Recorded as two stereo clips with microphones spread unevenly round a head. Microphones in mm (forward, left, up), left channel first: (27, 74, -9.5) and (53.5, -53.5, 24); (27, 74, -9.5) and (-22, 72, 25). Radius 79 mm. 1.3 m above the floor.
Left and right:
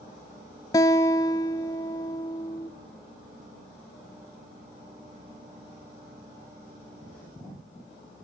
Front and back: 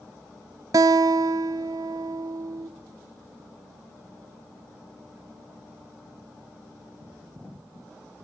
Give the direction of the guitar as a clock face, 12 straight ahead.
6 o'clock.